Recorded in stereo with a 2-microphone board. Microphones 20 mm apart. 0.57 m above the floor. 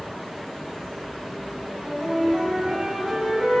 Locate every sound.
1.7 s a flute: 70° right (ahead or behind), 4 m